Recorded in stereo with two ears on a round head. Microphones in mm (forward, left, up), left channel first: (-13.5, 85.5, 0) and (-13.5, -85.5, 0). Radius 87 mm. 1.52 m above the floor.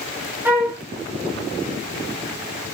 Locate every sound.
0.5 s a flute: 10° right (ahead or behind), 1.8 m